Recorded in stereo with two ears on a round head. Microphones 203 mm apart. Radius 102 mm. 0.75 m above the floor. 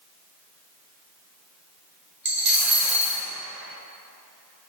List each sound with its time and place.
2.2 s a dropped coin: 50° right (ahead or behind), 1.1 m